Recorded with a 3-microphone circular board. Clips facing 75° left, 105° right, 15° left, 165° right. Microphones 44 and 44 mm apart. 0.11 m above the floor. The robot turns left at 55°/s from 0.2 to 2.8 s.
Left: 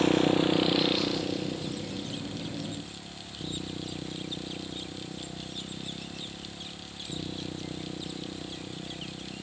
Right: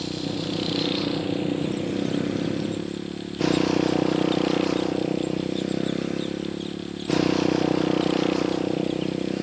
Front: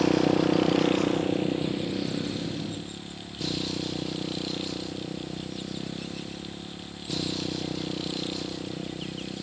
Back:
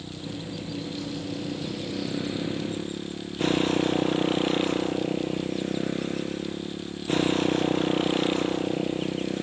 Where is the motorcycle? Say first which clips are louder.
Left 6 dB, front 15 dB; 25° left; by 9.4 s 115° right.